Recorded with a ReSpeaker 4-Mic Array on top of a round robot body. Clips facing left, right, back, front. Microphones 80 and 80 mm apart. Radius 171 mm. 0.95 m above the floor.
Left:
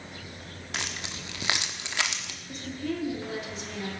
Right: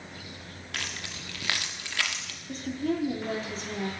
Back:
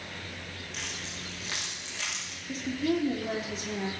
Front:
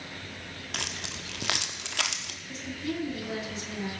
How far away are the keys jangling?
About 1.3 m.